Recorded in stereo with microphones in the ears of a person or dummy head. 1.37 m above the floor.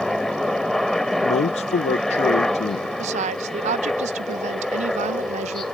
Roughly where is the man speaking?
Left.